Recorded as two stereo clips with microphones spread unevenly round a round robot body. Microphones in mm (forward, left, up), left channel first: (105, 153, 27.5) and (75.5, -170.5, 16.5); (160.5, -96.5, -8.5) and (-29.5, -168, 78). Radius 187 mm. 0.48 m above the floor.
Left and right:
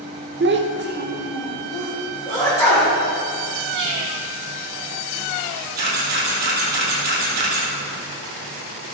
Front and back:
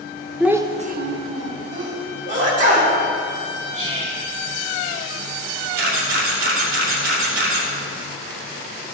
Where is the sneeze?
165° left, 3.5 m.